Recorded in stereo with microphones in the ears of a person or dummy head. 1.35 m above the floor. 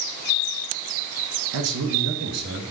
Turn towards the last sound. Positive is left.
turn(degrees=-85)